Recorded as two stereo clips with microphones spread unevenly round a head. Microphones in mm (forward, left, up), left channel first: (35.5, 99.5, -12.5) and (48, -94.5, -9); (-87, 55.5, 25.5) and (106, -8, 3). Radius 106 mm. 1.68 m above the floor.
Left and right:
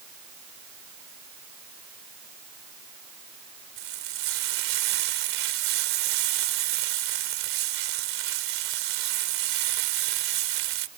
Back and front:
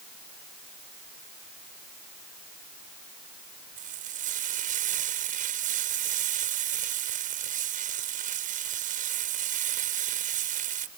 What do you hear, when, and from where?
3.8 s frying: 75° right